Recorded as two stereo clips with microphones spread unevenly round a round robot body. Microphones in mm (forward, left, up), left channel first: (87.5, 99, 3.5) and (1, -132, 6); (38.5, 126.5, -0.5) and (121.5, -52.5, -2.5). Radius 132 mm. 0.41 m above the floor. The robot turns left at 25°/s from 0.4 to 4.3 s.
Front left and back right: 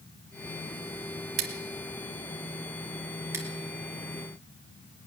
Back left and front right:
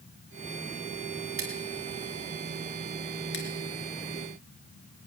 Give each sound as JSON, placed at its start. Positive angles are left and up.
{"t": 1.4, "sound": "scissors", "azimuth_deg": -145, "distance_m": 1.5}